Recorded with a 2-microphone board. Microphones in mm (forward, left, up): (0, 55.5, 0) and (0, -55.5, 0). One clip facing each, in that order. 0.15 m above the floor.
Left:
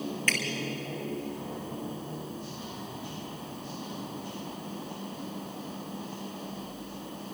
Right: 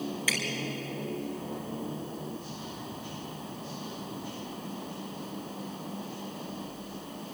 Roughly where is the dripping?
Centre.